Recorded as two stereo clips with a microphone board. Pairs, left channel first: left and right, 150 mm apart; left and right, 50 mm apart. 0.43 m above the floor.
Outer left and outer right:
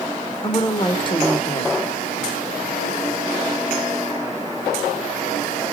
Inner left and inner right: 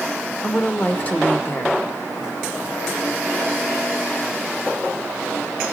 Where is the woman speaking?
30° left (ahead or behind), 0.9 m.